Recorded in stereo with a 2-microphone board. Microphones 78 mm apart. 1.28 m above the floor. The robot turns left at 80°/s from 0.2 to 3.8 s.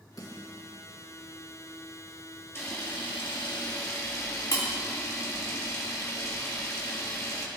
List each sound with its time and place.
0.2 s a snare drum: 50° left (ahead or behind), 2.5 m; by 0.7 s 60° left (ahead or behind), 2.5 m
2.5 s a camera shutter: 35° left (ahead or behind), 1.8 m; by 7.5 s 45° left (ahead or behind), 1.8 m